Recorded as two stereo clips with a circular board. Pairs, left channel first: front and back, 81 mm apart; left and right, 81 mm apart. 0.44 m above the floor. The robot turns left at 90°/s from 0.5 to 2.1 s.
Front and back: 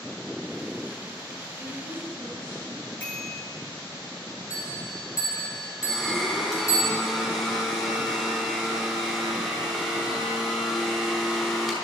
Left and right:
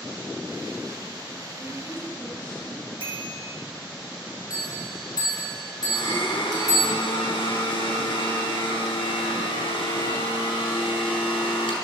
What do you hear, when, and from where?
1.6 s a woman speaking: 60° left, 7 m; by 2.8 s 15° left, 7 m
3.0 s a bicycle bell: 75° right, 5 m
4.5 s a bell: 50° left, 5 m
5.8 s a blender: 85° left, 5 m